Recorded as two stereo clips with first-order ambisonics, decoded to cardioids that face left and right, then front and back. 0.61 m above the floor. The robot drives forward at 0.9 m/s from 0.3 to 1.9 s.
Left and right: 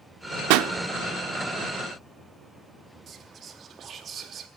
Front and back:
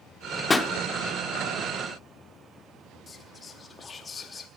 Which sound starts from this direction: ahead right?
Whispering, at 3.1 s.